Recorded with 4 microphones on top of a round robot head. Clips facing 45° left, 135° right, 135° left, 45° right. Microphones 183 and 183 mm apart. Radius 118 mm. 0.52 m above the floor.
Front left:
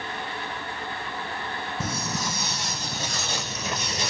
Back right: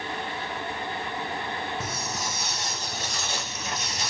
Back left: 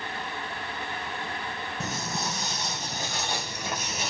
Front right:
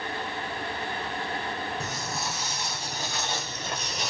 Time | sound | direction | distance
1.8 | footsteps | 65° left | 1.7 m